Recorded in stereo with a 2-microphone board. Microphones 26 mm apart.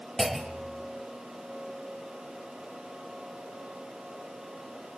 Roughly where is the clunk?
Centre.